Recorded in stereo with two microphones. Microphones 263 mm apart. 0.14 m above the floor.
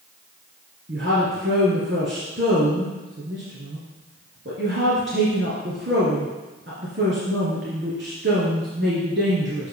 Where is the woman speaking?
45° right (ahead or behind), 1.9 m.